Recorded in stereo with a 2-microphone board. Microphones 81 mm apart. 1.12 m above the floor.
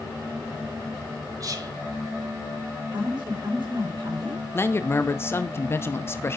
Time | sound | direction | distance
1.4 | whispering | 45° right (ahead or behind) | 1.6 m
2.9 | a woman speaking | 70° right (ahead or behind) | 3.5 m
4.5 | a man speaking | 30° left (ahead or behind) | 0.8 m